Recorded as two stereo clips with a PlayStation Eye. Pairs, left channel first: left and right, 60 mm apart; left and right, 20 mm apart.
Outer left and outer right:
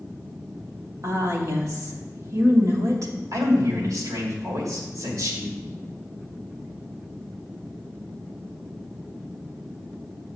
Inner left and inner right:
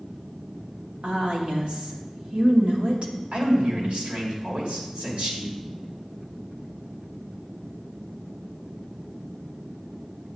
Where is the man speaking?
80° right, 2.5 m.